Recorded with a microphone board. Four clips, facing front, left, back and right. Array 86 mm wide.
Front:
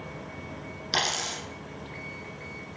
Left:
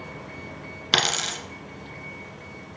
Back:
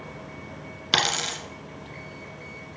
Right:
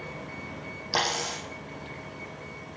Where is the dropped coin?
120° left, 1.2 m.